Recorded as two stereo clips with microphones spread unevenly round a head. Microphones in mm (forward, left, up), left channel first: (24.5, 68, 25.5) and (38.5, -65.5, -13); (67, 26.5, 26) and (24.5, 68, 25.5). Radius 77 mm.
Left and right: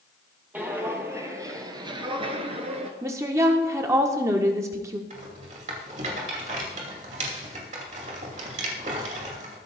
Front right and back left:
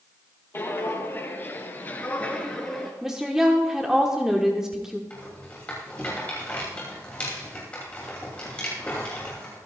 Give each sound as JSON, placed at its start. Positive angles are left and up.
{"t": 0.5, "sound": "footsteps", "azimuth_deg": 0, "distance_m": 2.5}
{"t": 3.0, "sound": "a woman speaking", "azimuth_deg": -145, "distance_m": 1.1}
{"t": 5.1, "sound": "a rattle", "azimuth_deg": -120, "distance_m": 2.5}